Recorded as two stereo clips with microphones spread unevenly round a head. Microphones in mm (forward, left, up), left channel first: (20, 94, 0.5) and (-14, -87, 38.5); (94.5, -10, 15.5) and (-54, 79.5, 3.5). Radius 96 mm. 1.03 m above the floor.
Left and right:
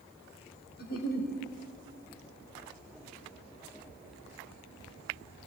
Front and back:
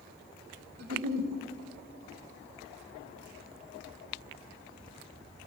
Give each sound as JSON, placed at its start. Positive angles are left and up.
{"t": 0.8, "sound": "a giggle", "azimuth_deg": 120, "distance_m": 2.5}